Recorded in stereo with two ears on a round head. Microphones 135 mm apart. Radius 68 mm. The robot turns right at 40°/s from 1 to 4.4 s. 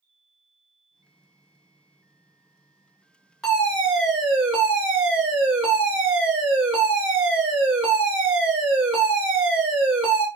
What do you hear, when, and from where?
3.4 s a fire alarm: 5° left (ahead or behind), 1.6 m; by 10.3 s 10° right (ahead or behind), 1.6 m